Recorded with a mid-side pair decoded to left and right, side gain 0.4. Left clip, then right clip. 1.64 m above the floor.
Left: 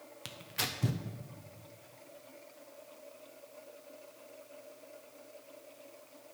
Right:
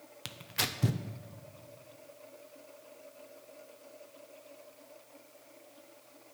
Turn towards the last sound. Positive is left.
turn(degrees=-30)